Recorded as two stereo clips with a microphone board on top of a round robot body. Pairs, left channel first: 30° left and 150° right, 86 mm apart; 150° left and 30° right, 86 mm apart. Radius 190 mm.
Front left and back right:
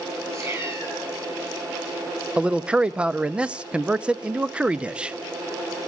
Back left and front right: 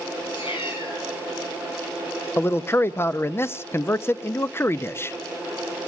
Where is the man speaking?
145° left, 0.7 m.